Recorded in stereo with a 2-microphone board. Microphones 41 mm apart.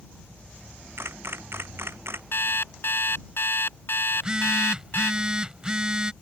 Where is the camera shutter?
70° right (ahead or behind).